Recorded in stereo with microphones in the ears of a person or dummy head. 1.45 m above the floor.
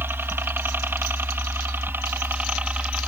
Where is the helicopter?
10° right (ahead or behind).